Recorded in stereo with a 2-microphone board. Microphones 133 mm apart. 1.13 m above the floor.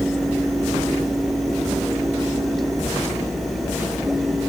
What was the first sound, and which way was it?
Only background noise.